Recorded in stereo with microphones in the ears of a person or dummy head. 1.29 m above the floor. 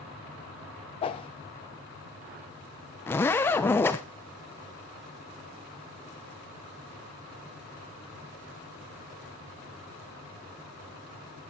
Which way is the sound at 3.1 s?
10° left (ahead or behind).